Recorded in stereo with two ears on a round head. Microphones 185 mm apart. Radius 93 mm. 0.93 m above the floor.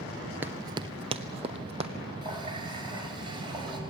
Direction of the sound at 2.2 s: 25° right (ahead or behind).